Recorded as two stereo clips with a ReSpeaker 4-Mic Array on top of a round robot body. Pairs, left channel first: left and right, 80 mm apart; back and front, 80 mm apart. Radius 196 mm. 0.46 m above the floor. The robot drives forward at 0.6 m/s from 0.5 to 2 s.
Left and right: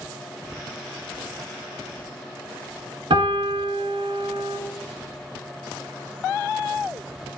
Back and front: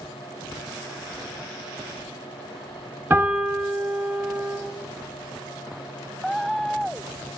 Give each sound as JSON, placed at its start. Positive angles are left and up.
{"t": 3.1, "sound": "a piano", "azimuth_deg": -70, "distance_m": 1.1}